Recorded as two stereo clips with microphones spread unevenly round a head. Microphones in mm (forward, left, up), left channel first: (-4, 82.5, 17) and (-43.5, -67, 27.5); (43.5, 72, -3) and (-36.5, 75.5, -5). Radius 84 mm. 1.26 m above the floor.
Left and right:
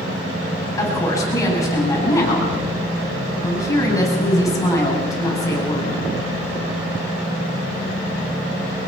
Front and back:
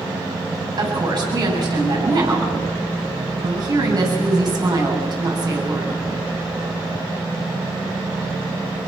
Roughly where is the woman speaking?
Behind left.